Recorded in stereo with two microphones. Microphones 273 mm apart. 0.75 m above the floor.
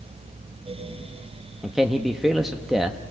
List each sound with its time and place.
1.6 s a man speaking: centre (ahead or behind), 1.0 m